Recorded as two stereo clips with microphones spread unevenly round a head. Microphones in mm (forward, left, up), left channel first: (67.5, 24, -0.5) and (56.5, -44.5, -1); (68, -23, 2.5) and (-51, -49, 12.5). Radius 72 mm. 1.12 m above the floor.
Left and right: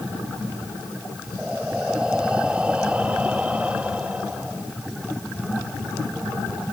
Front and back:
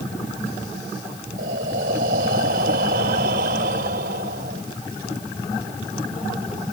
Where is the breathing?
Straight behind.